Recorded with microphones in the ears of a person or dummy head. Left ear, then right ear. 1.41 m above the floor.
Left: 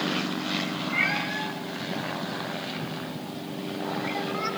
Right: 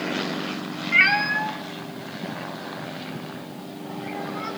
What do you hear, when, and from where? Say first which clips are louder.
0.9 s a cat meowing: right 9 dB; 50° right (ahead or behind), 0.9 m; by 4.5 s 15° left (ahead or behind), 3.5 m